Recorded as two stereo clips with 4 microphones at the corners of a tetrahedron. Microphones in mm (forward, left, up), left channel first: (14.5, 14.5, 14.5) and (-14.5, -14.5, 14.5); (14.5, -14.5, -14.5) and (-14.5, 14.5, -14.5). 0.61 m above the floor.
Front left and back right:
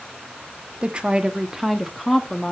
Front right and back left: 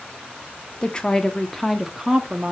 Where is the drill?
No drill in this recording.